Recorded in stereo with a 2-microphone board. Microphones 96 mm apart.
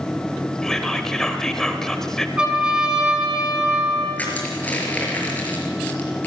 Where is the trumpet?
10° right (ahead or behind), 5 m.